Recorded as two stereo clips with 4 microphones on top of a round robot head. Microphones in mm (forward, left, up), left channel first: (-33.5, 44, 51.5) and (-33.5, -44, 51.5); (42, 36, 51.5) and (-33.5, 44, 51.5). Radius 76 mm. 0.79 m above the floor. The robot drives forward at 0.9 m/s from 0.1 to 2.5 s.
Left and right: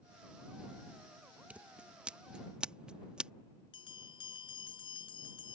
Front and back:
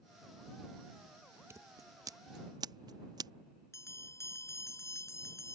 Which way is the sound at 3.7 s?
45° left.